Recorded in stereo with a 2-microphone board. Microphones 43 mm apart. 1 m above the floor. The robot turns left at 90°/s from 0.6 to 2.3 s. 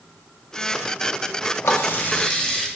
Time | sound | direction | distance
1.6 | a running tap | 80° left | 0.9 m